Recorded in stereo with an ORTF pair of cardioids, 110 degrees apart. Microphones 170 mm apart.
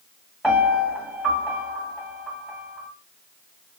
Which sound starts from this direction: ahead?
A piano, at 0.4 s.